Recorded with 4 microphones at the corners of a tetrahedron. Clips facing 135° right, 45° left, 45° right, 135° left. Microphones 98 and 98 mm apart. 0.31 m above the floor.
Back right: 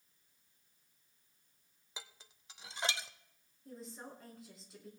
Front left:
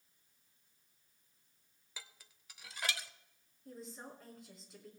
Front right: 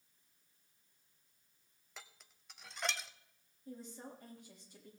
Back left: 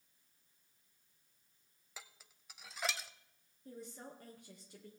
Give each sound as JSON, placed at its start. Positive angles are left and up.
{"t": 2.0, "sound": "dishes clattering", "azimuth_deg": -145, "distance_m": 0.6}
{"t": 3.6, "sound": "a woman speaking", "azimuth_deg": 135, "distance_m": 3.5}